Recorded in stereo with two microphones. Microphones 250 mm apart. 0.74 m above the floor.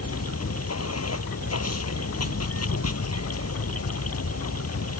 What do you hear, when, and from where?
0.0 s running water: 75° left (ahead or behind)